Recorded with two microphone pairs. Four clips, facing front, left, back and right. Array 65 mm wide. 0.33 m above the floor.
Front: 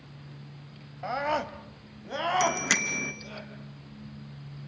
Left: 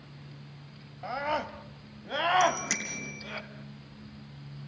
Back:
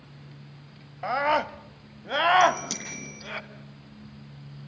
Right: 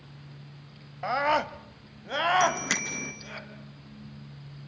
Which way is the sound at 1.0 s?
135° right.